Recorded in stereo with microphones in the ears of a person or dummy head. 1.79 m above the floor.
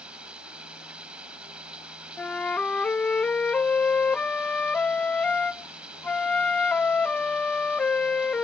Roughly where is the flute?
Centre.